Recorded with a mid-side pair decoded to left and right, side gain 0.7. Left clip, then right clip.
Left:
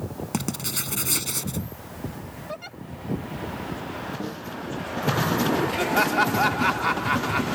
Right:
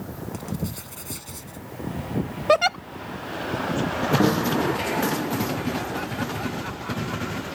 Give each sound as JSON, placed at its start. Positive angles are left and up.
{"t": 0.3, "sound": "writing", "azimuth_deg": 50}
{"t": 2.5, "sound": "a giggle", "azimuth_deg": -65}
{"t": 4.2, "sound": "a snare drum", "azimuth_deg": -50}
{"t": 5.8, "sound": "laughter", "azimuth_deg": 55}